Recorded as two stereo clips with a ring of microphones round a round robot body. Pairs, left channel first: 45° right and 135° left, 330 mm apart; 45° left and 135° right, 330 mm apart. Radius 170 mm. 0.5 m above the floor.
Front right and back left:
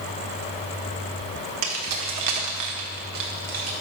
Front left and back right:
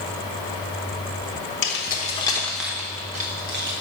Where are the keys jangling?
95° left, 1.2 m; by 3.7 s 175° left, 1.5 m.